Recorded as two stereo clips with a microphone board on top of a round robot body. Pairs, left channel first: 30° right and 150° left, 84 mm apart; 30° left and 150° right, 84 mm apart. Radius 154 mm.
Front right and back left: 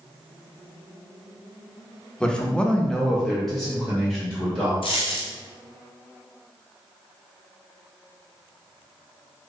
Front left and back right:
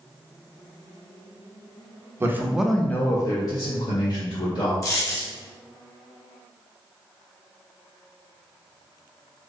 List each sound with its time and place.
2.2 s a man speaking: 105° right, 0.8 m; by 4.7 s 60° left, 1.9 m
4.8 s a dropped coin: 25° right, 0.9 m